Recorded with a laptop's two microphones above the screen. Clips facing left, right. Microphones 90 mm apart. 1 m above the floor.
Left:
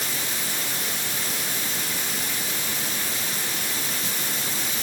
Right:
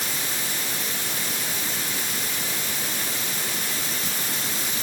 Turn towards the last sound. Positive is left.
No sound to turn to.